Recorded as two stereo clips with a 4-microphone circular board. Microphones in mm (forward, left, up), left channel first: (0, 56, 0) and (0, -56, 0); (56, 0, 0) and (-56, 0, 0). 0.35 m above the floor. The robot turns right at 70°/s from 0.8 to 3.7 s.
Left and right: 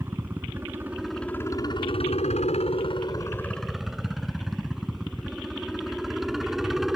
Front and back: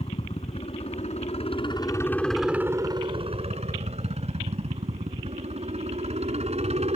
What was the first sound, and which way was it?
A helicopter, 20° right.